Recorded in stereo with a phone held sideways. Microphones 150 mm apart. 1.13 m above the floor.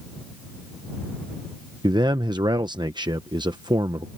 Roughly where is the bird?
I don't hear a bird.